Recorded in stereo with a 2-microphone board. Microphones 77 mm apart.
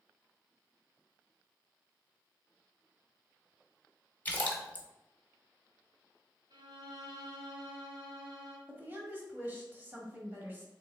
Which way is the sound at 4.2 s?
20° left (ahead or behind).